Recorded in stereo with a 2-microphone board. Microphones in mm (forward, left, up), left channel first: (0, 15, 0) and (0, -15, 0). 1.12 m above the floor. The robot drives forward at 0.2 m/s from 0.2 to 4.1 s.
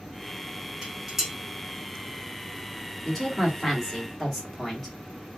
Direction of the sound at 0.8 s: 20° right (ahead or behind).